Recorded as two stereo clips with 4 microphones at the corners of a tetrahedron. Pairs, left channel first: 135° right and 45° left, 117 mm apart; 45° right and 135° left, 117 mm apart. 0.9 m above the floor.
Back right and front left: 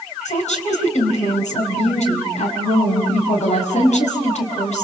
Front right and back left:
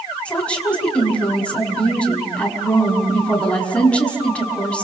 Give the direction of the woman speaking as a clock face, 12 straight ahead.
4 o'clock.